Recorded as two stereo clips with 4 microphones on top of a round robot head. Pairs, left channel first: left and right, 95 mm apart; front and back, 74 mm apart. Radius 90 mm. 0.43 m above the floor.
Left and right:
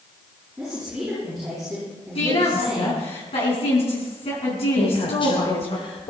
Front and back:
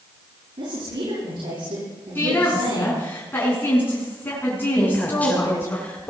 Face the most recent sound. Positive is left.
turn(degrees=70)